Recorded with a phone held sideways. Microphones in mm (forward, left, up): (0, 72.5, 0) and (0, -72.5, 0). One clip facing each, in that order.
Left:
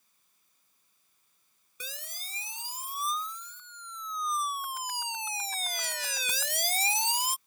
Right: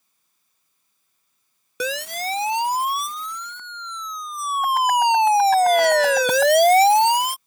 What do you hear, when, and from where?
1.8 s a siren: 85° right; by 7.4 s 75° right (ahead or behind)